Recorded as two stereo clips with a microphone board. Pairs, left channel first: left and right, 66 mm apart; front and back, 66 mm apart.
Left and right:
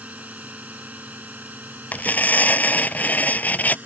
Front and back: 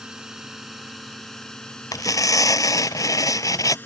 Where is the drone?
115° right; by 3.9 s 40° right.